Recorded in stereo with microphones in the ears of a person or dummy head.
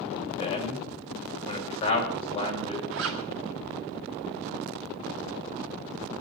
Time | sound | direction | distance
0.4 | a man speaking | 25° left (ahead or behind) | 7.5 m
2.9 | a zipper | 65° right (ahead or behind) | 1.8 m